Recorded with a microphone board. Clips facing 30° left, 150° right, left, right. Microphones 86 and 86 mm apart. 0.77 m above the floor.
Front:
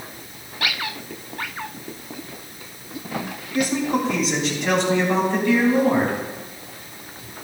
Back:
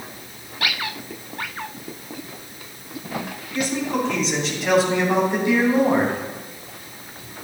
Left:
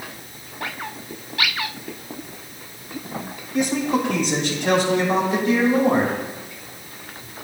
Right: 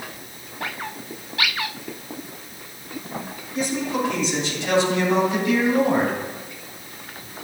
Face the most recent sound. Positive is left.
turn(degrees=155)